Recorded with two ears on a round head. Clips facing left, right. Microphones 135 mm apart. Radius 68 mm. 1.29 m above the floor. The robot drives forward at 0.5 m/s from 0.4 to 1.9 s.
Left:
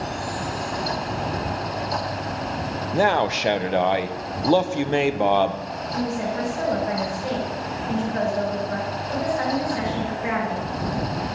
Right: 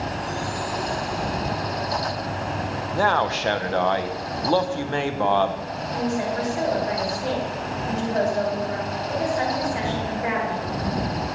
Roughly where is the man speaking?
Centre.